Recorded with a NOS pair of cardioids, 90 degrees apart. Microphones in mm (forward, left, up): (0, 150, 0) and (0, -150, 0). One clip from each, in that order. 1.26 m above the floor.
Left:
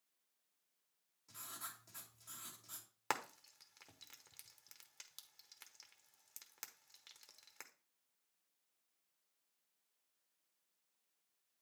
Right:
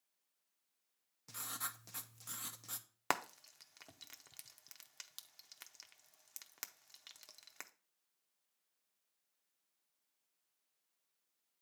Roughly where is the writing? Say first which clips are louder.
Right 6 dB; right.